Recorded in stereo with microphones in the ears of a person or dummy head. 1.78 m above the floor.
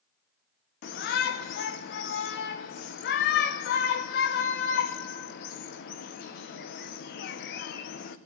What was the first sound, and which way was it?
A shout, 55° left (ahead or behind).